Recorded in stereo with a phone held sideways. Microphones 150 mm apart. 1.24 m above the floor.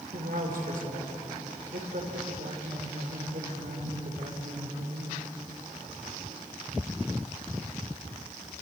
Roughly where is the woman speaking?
Right.